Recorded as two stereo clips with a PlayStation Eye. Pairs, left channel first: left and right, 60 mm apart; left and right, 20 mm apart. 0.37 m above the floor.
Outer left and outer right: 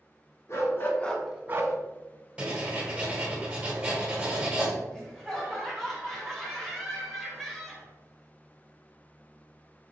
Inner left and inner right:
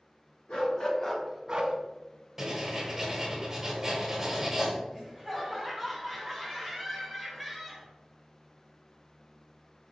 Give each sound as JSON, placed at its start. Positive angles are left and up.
{"t": 0.5, "sound": "a dog barking", "side_deg": 45, "distance_m": 1.2}
{"t": 2.4, "sound": "writing", "side_deg": -15, "distance_m": 1.1}
{"t": 4.9, "sound": "laughter", "side_deg": 10, "distance_m": 1.7}